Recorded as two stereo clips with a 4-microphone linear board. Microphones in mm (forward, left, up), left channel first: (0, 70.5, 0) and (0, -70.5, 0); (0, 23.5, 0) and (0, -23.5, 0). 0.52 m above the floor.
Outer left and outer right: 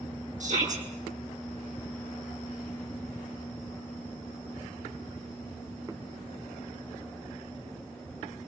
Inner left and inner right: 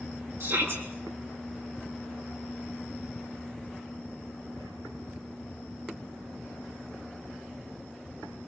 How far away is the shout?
About 9 m.